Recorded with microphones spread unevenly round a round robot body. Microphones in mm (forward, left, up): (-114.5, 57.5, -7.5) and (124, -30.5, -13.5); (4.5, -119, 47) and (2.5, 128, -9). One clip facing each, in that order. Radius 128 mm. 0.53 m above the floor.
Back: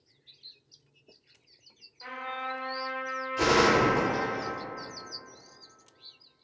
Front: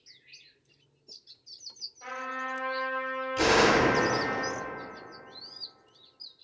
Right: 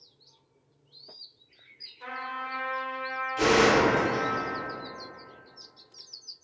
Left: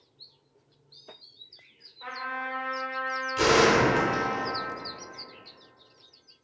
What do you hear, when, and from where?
2.0 s a trumpet: 145° right, 1.2 m
3.4 s a gunshot: 25° left, 1.0 m